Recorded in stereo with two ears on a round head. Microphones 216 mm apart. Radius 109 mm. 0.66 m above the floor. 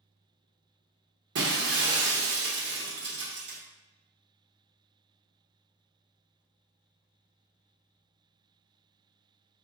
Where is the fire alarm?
No fire alarm in this recording.